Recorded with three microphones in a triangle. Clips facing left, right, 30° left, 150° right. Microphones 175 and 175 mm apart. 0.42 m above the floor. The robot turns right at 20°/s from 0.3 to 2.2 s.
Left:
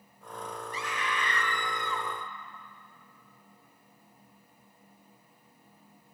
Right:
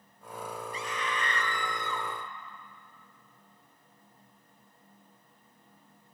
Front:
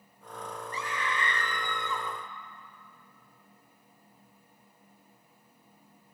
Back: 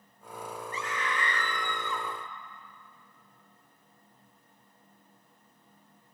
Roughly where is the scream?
Left.